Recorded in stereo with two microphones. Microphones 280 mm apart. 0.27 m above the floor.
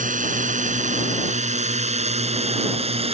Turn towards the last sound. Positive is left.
turn(degrees=-20)  # may be behind; listen again after turning